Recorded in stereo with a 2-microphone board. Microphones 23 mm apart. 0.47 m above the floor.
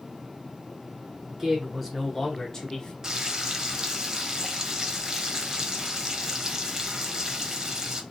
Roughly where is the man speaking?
Centre.